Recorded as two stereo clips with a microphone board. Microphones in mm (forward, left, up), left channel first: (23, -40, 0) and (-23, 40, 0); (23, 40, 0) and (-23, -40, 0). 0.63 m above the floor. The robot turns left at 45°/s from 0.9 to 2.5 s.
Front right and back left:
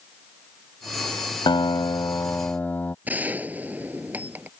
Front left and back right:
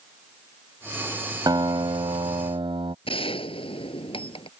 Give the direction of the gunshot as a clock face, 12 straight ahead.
10 o'clock.